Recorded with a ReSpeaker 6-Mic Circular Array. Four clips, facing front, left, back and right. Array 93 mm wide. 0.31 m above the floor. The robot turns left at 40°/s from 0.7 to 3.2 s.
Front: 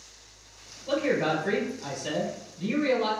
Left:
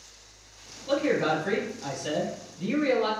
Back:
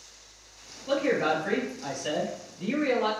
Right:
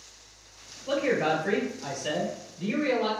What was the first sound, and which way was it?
A man speaking, 90° right.